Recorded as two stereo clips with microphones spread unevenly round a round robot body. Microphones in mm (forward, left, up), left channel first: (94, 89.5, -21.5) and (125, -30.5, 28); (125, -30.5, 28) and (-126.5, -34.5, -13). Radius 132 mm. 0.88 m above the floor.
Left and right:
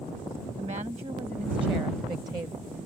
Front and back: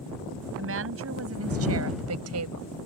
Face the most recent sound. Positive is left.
turn(degrees=-155)